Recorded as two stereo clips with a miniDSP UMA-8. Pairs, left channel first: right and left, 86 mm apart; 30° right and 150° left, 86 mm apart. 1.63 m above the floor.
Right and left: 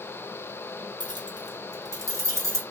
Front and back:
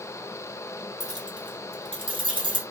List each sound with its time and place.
1.0 s keys jangling: 110° left, 1.1 m; by 2.6 s 150° left, 1.6 m